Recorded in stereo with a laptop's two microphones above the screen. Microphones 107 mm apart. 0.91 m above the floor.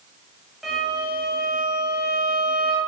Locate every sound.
0.6 s a violin: centre (ahead or behind), 0.9 m